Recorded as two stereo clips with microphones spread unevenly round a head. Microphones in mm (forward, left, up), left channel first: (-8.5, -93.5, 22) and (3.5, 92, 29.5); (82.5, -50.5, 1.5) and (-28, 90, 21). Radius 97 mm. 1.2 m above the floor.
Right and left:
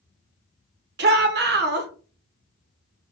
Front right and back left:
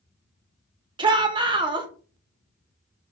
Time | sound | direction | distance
1.0 | a shout | 65° left | 0.8 m